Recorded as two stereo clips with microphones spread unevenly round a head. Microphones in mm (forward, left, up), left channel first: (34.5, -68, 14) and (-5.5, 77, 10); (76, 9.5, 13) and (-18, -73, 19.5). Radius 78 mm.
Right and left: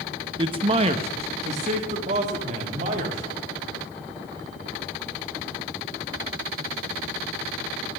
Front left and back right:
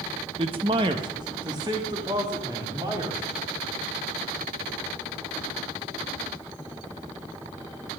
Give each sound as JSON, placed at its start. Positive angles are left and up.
{"t": 0.4, "sound": "a man speaking", "azimuth_deg": 165, "distance_m": 0.5}